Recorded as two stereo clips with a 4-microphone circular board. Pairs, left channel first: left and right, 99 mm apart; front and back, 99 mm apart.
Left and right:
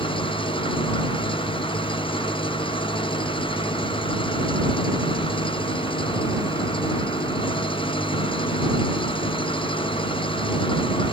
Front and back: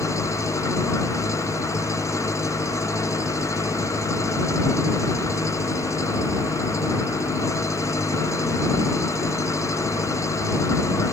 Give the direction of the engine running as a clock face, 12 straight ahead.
10 o'clock.